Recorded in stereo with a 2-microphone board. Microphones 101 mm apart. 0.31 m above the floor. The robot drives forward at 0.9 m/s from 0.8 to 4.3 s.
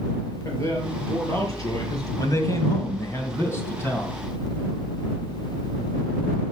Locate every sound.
0.5 s a man speaking: 30° left (ahead or behind), 5 m; by 2.1 s 40° left (ahead or behind), 4 m
2.2 s a man speaking: 35° left (ahead or behind), 2 m; by 4.1 s 25° left (ahead or behind), 3.5 m